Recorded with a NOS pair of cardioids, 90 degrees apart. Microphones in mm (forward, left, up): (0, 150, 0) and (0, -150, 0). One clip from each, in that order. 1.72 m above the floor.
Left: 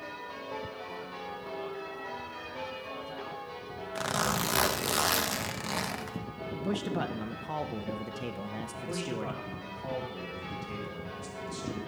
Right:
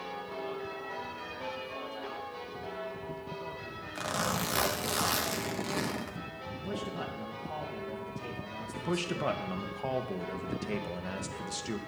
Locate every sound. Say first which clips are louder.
4.0 s a zipper: left 2 dB; 20° left, 0.8 m
6.5 s a man speaking: left 5 dB; 45° left, 0.7 m
8.7 s a man speaking: right 4 dB; 45° right, 1.3 m